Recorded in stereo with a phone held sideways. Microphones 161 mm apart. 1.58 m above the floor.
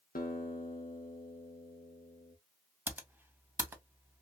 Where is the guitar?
65° left (ahead or behind), 0.7 m.